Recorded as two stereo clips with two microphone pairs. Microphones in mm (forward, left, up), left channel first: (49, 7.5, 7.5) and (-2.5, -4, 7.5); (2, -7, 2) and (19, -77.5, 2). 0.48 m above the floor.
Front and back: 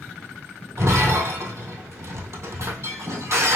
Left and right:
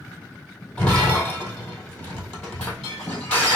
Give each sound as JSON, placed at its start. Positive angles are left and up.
{"t": 0.8, "sound": "breaking glass", "azimuth_deg": 180, "distance_m": 1.6}